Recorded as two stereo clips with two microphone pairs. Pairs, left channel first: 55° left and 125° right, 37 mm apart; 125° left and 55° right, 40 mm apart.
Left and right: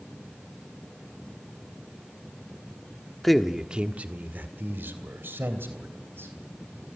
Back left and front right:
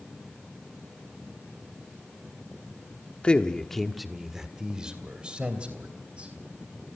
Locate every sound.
3.2 s a man speaking: 135° left, 1.2 m; by 6.3 s 110° right, 4 m